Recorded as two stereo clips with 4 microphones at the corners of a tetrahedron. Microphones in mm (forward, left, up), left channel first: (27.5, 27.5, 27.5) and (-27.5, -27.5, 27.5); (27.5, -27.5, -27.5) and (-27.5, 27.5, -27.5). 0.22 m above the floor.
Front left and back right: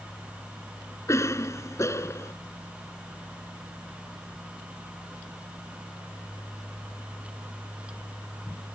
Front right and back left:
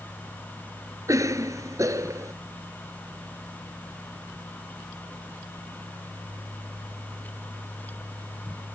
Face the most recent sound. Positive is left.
turn(degrees=95)